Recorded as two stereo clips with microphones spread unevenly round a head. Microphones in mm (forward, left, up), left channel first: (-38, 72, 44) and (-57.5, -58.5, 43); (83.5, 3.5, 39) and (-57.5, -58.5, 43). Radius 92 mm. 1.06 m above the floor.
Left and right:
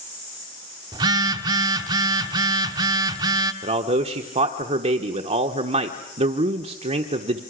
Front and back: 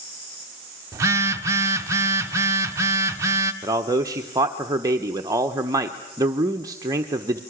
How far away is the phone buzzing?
About 0.9 m.